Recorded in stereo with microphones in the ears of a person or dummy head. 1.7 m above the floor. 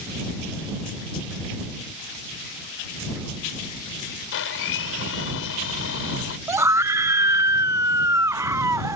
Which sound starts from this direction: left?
A blender, at 4.3 s.